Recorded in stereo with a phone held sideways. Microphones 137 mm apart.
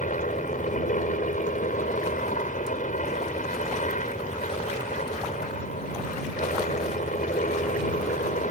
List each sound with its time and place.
0.0 s a helicopter: 75° left (ahead or behind)